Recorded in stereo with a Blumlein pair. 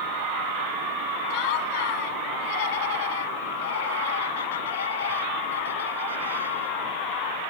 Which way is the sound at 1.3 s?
45° left.